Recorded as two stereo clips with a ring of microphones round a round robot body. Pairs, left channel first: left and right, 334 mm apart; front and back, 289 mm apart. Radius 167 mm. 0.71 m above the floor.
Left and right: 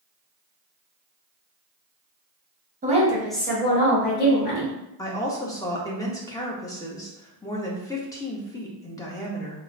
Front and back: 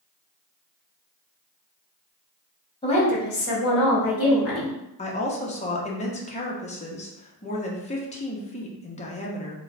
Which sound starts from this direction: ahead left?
A woman speaking, at 5.0 s.